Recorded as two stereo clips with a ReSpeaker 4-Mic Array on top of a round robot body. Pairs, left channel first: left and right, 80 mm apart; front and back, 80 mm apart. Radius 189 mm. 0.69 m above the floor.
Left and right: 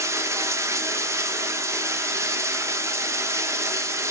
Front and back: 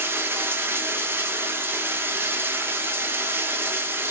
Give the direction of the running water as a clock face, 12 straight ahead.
4 o'clock.